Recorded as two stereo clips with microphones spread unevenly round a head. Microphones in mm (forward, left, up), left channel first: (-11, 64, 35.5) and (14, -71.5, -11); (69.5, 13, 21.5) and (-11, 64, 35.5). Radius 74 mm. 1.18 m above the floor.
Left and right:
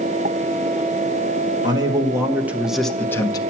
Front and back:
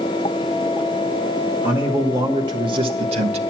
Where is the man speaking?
135° right, 1.2 m; by 3.4 s 170° left, 0.7 m.